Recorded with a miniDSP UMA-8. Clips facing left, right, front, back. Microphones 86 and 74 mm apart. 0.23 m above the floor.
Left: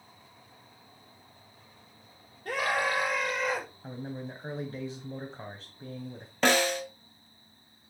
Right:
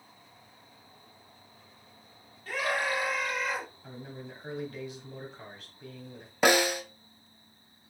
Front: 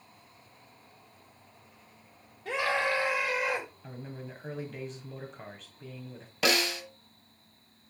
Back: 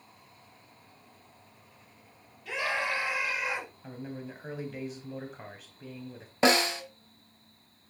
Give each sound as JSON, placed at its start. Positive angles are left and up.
{"t": 2.5, "sound": "a scream", "azimuth_deg": 55, "distance_m": 6.0}
{"t": 3.8, "sound": "a man speaking", "azimuth_deg": 100, "distance_m": 1.7}
{"t": 6.4, "sound": "a snare drum", "azimuth_deg": -160, "distance_m": 1.6}